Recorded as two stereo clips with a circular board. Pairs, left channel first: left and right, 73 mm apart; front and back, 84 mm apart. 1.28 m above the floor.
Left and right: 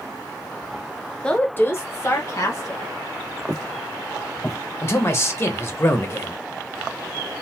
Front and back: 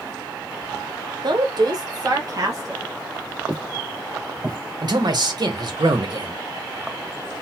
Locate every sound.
1.2 s a woman speaking: 165° left, 0.7 m; by 2.8 s 130° left, 1.8 m
3.5 s footsteps: 110° left, 1.5 m; by 4.6 s straight behind, 1.4 m
4.8 s a man speaking: 145° left, 0.9 m